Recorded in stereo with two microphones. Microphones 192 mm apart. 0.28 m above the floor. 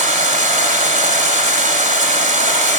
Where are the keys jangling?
I don't hear keys jangling.